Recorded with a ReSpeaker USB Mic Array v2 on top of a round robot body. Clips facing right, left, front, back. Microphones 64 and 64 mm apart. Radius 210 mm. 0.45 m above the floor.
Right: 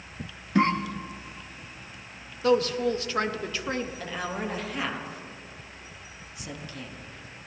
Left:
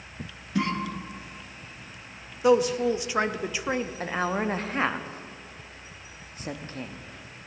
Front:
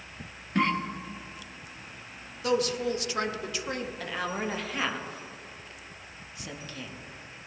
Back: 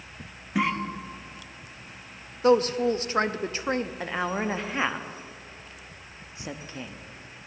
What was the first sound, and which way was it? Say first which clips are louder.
A cough: right 5 dB, even; 100° right.